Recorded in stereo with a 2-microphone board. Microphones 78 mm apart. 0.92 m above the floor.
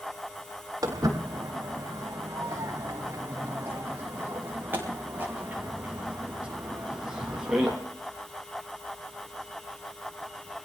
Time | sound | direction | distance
0.8 | footsteps | 50° right (ahead or behind) | 7 m